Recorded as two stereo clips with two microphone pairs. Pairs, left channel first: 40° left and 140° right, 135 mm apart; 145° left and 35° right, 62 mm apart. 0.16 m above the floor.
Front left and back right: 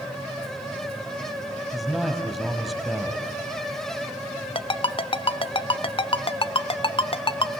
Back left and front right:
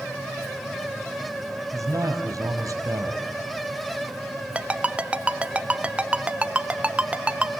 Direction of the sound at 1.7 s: 50° right.